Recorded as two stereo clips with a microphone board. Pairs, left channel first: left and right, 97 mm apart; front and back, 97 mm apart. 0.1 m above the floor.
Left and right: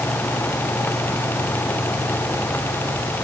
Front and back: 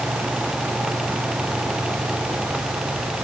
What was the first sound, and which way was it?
Only background noise.